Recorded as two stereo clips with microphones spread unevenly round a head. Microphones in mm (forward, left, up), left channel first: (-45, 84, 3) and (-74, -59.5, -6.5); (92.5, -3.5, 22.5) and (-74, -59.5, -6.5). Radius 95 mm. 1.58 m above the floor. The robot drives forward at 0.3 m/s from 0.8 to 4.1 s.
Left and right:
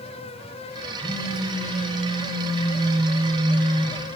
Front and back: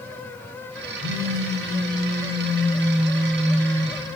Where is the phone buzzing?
165° left, 4 m.